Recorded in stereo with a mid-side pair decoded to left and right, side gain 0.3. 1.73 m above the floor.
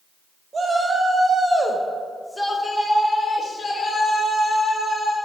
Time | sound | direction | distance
0.5 | a shout | 55° right | 2 m